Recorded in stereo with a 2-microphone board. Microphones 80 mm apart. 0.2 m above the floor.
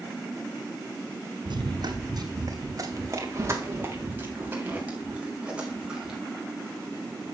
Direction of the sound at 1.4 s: 70° right (ahead or behind).